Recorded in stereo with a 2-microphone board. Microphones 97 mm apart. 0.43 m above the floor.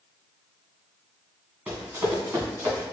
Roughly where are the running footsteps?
Right.